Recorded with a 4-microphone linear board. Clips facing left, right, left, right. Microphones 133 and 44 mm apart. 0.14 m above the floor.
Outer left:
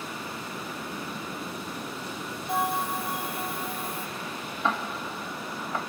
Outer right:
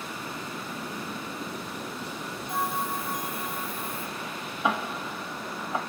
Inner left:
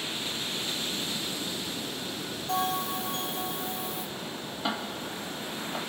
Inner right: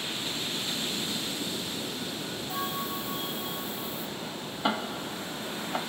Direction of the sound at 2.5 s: 75° left (ahead or behind).